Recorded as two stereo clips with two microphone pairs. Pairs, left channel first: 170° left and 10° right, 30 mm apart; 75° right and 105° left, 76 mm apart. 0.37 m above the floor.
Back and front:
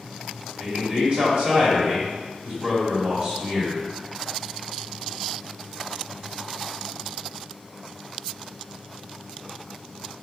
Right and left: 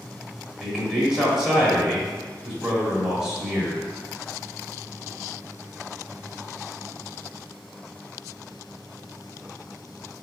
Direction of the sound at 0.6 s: 25° left.